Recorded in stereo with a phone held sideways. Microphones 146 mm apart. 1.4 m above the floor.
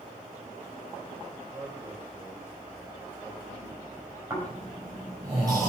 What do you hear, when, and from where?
1.5 s a man speaking: 25° right (ahead or behind), 7.5 m
4.3 s snoring: 25° right (ahead or behind), 6 m